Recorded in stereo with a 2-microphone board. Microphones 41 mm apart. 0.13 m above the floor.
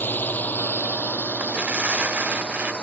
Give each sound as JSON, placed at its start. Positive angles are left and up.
{"t": 0.0, "sound": "a drone", "side_deg": 55}
{"t": 1.4, "sound": "tearing paper", "side_deg": -35}